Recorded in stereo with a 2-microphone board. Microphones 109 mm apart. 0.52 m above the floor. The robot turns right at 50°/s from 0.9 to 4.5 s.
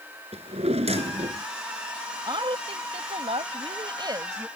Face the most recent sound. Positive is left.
turn(degrees=-20)